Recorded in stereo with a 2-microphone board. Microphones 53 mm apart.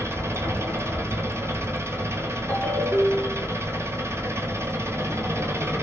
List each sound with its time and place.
0.0 s an engine running: 60° right (ahead or behind), 0.7 m
2.5 s a ringtone: 25° left (ahead or behind), 1.3 m